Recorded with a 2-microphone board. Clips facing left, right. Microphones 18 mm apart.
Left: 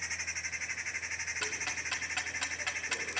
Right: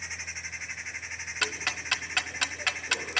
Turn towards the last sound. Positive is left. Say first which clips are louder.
# right 5 dB
turn(degrees=-45)  # may be behind; listen again after turning